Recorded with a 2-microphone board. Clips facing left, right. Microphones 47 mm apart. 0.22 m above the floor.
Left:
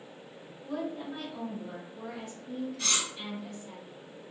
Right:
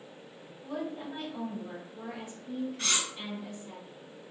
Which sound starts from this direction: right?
Cutlery clinking, at 2.8 s.